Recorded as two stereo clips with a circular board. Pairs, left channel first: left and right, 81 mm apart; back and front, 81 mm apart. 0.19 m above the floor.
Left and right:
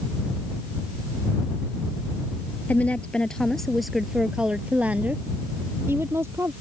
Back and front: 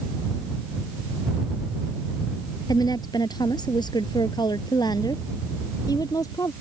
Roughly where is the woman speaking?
Behind.